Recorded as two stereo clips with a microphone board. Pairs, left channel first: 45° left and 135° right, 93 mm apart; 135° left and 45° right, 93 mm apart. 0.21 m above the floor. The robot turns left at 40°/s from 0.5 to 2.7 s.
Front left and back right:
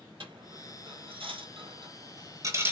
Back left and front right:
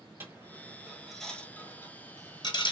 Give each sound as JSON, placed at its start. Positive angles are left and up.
{"t": 0.2, "sound": "a dropped coin", "azimuth_deg": -110, "distance_m": 0.7}